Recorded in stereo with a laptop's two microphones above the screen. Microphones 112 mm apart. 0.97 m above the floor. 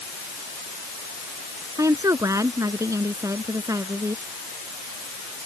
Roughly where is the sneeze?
No sneeze in this recording.